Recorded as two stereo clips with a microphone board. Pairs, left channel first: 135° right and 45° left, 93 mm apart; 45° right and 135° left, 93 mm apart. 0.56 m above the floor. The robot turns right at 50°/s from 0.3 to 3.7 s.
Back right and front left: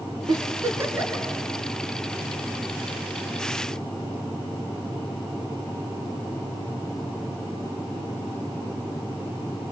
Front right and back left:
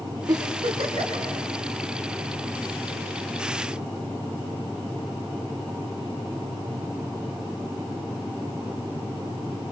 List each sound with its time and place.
0.3 s a giggle: 90° left, 3.5 m; by 1.2 s 135° left, 3.5 m